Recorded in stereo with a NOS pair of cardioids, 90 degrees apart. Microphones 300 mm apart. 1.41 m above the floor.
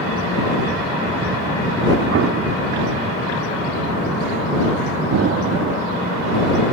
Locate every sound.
2.1 s an explosion: 55° right
5.1 s an explosion: 55° right